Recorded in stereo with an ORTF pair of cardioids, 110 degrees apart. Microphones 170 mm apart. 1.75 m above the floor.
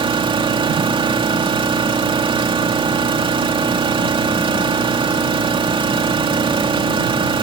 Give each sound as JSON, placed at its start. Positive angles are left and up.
{"t": 0.0, "sound": "an engine running", "azimuth_deg": -30}